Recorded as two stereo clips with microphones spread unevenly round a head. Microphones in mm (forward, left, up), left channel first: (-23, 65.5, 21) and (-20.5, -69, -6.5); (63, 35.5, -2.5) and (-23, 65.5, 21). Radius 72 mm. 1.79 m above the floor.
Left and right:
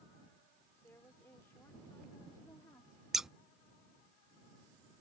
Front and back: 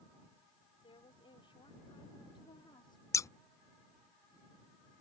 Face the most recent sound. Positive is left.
turn(degrees=30)